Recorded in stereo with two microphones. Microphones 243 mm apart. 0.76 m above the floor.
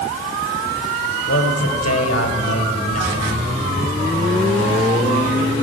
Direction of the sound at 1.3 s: 80° left.